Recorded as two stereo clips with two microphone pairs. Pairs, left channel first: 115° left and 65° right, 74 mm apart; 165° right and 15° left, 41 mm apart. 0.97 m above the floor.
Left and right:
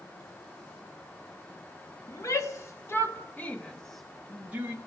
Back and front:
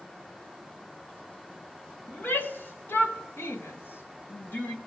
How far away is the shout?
About 2.5 m.